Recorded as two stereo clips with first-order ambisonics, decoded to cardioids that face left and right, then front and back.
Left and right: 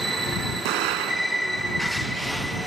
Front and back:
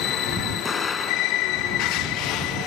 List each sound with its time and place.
0.7 s an explosion: 75° right